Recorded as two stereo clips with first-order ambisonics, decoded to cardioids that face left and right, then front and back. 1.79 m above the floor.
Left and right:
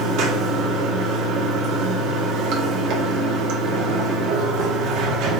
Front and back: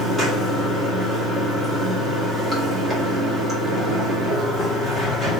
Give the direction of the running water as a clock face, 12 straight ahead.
3 o'clock.